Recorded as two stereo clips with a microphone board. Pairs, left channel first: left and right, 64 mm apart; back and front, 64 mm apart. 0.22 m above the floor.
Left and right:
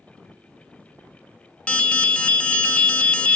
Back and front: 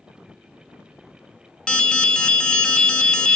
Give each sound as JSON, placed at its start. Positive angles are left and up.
{"t": 1.7, "sound": "an alarm", "azimuth_deg": 125, "distance_m": 0.9}